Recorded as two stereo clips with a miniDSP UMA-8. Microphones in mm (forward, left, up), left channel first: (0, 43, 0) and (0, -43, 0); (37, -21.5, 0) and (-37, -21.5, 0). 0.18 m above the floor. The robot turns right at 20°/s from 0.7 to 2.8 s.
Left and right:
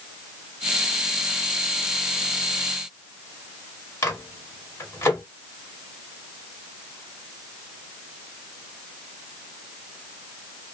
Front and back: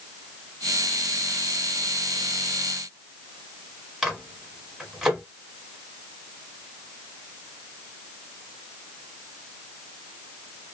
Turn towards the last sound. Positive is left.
turn(degrees=100)